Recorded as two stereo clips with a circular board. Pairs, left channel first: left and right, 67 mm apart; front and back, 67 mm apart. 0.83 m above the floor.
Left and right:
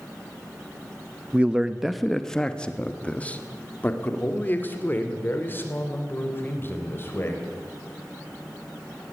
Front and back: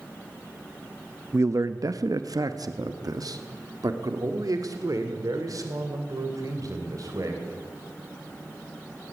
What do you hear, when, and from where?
1.3 s a man speaking: 150° right, 0.6 m; by 7.4 s 145° left, 3.5 m